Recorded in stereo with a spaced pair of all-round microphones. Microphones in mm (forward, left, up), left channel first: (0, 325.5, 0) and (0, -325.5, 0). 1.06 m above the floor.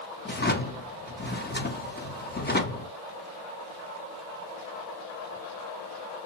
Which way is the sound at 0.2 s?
15° left (ahead or behind).